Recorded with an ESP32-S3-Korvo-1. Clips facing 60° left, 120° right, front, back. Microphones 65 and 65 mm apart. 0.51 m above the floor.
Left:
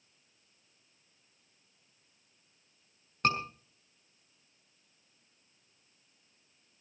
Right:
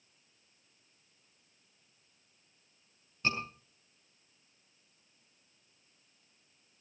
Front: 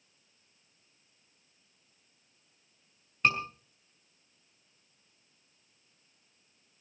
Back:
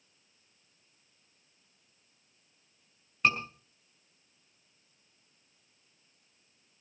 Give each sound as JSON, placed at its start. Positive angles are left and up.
{"t": 3.2, "sound": "a scream", "azimuth_deg": 90, "distance_m": 6.0}